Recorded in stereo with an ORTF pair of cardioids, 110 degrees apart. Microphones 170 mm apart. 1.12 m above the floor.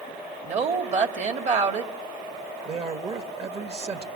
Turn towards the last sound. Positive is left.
turn(degrees=-40)